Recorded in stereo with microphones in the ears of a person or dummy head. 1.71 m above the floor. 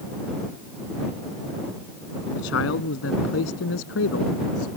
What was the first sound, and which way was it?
A man speaking, 80° left.